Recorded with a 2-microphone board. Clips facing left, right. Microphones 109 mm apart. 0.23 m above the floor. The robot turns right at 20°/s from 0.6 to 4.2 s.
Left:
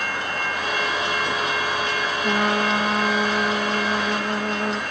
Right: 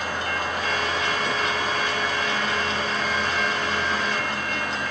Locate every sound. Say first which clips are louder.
2.2 s a trumpet: left 5 dB; 60° left, 0.8 m; by 4.8 s 95° left, 0.8 m